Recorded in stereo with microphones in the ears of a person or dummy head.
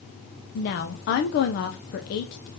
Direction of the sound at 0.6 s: 55° left (ahead or behind).